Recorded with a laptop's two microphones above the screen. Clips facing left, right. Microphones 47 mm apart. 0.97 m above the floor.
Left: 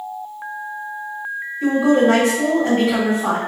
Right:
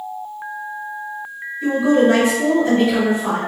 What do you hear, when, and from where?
1.6 s a woman speaking: 65° left (ahead or behind), 1.2 m